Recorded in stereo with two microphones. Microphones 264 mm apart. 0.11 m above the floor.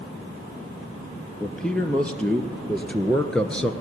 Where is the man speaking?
5° left (ahead or behind), 2.5 m.